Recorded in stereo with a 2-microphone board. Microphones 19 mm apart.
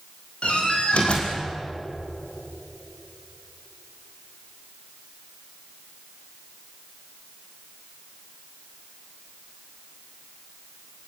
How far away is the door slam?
About 5.5 m.